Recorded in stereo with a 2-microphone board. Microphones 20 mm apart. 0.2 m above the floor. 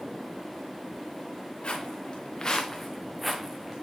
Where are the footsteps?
65° left (ahead or behind), 1.9 m; by 3.8 s 35° right (ahead or behind), 1.3 m.